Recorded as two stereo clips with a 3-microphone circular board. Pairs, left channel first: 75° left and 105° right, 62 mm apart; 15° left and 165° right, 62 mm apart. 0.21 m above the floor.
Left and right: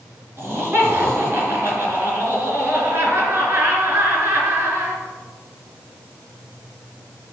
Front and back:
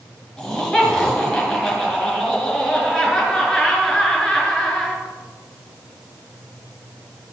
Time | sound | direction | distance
0.4 | laughter | 65° right | 3.5 m